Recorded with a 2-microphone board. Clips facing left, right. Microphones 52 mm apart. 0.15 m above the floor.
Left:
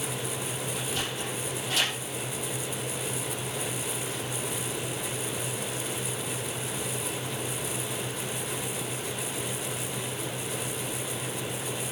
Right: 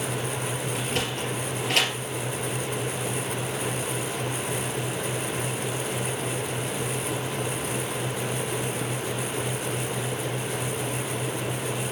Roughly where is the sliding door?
Right.